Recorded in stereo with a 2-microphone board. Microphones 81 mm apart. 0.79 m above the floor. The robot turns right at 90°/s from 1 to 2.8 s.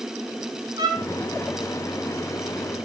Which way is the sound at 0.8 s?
65° right (ahead or behind).